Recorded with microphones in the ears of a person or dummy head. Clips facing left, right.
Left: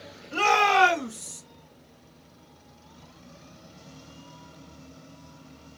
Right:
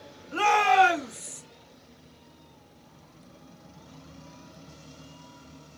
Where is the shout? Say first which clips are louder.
Right 1 dB; 60° left (ahead or behind), 2.5 m; by 1.4 s 80° left, 3 m.